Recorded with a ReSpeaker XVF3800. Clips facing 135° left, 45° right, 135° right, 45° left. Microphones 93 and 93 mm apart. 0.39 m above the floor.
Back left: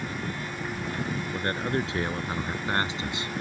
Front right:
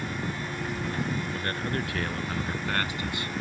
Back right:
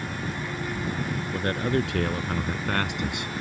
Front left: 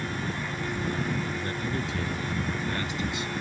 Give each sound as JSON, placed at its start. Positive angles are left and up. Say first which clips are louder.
{"t": 1.3, "sound": "a man speaking", "louder": "back left 3 dB, back right 6 dB", "azimuth_deg": -155}